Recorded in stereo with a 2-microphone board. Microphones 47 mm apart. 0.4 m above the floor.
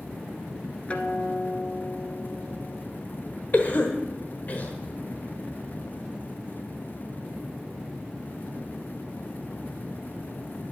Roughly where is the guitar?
Left.